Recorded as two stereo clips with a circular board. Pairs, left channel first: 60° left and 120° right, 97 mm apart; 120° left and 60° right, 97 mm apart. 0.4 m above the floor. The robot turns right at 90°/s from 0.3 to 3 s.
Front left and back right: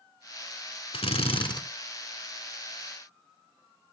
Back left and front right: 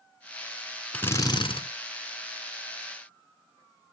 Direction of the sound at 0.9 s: 45° left.